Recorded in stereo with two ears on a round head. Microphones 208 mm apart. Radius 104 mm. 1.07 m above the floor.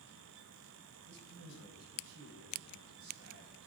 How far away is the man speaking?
About 4 m.